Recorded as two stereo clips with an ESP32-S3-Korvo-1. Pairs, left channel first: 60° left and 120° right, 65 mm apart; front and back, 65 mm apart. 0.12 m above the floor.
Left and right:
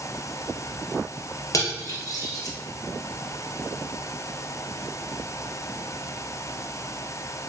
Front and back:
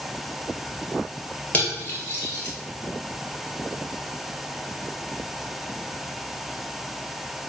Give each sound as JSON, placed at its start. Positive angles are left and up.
{"t": 1.5, "sound": "cutlery clinking", "azimuth_deg": 60, "distance_m": 1.3}